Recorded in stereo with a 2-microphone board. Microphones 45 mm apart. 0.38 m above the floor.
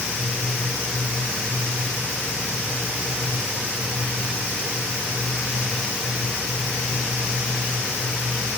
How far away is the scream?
No scream in this recording.